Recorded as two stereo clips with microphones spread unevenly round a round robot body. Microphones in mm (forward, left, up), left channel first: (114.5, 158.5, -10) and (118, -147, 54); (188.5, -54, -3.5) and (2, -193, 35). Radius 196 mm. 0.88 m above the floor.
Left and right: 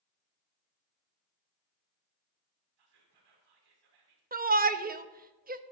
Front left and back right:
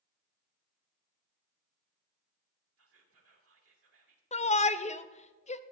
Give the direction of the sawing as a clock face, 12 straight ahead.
I don't hear sawing.